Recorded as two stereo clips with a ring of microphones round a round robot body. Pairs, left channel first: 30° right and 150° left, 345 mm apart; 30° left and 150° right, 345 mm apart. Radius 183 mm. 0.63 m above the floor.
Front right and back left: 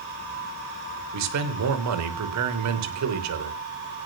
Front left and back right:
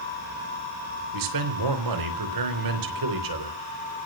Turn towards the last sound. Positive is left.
turn(degrees=-170)